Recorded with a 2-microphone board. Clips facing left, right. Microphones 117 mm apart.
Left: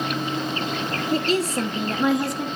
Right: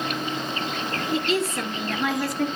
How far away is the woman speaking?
About 2 m.